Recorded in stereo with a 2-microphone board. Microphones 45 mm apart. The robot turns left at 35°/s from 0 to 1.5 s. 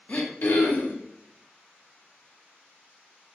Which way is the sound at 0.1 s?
140° left.